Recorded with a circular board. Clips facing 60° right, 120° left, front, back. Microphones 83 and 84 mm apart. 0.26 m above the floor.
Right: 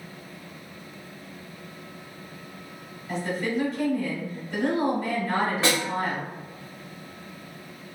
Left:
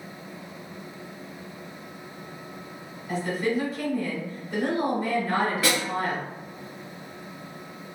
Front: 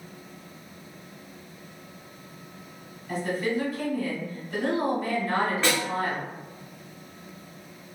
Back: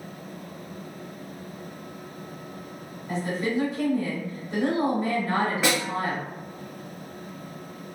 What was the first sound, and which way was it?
A woman speaking, 165° right.